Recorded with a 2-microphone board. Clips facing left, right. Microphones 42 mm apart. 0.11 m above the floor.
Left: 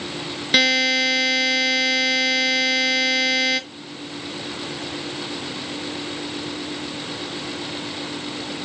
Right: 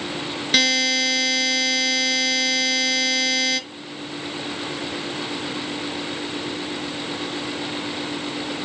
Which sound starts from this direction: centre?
A buzzer, at 0.5 s.